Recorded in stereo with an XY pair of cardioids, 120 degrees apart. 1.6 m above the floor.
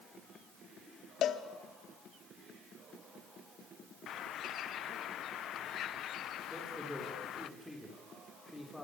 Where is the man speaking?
10° left, 5.5 m.